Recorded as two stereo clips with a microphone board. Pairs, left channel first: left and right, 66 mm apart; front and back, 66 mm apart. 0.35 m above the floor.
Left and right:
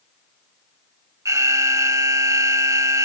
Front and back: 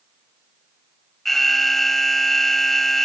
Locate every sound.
1.2 s an alarm: 85° right